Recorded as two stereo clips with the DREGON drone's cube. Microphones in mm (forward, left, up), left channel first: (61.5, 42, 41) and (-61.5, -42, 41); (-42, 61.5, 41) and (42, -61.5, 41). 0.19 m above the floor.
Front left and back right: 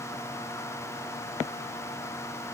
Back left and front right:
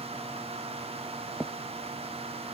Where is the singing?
No singing in this recording.